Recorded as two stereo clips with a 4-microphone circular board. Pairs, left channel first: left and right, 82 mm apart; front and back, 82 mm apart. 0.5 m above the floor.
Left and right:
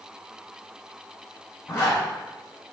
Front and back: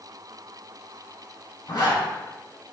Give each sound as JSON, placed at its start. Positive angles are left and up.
{"t": 1.7, "sound": "a zipper", "azimuth_deg": 35, "distance_m": 2.0}